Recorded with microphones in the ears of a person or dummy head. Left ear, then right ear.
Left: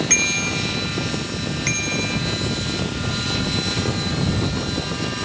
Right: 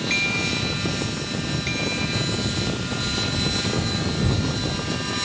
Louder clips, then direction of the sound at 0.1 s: Left 1 dB; 40° left (ahead or behind).